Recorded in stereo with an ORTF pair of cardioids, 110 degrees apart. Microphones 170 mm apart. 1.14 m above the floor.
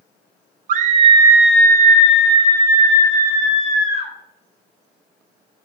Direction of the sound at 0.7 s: 55° right.